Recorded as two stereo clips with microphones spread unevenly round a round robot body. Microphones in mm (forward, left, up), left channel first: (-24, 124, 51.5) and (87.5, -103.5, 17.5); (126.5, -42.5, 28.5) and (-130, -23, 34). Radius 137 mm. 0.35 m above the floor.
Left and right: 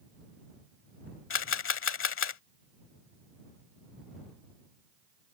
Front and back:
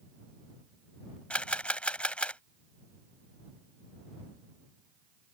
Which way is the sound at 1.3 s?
80° left.